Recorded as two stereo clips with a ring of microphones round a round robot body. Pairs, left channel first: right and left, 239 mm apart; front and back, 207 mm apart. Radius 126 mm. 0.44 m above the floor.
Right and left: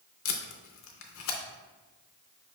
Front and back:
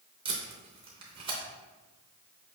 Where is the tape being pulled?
115° right, 0.6 m.